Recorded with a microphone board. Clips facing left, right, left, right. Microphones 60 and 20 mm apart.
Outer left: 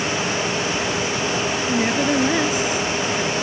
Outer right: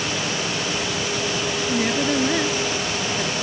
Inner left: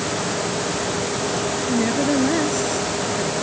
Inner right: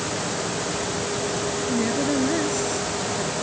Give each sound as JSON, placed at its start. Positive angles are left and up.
{"t": 1.7, "sound": "a woman speaking", "side_deg": 10}